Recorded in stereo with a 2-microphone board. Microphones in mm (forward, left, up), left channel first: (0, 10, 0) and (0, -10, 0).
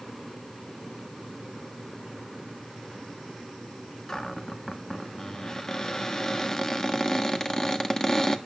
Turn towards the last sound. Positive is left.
turn(degrees=20)  # may be behind; listen again after turning